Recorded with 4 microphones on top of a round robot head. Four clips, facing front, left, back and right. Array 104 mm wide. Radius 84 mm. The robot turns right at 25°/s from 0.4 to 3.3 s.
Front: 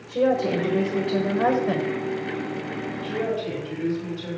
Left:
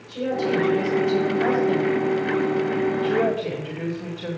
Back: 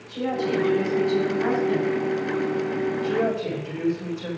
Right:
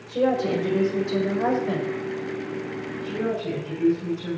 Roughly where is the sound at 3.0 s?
Behind left.